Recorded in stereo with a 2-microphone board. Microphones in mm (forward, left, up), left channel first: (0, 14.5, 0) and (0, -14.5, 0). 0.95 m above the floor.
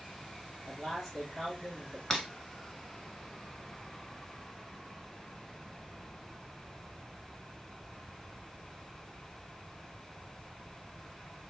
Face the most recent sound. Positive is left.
turn(degrees=5)  # may be behind; listen again after turning